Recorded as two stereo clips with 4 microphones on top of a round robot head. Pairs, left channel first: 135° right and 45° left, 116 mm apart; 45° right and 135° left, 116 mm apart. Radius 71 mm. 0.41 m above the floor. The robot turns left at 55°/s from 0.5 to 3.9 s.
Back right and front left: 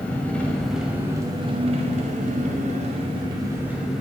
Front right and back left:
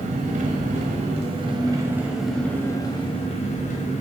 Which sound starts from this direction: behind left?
An engine running, at 0.0 s.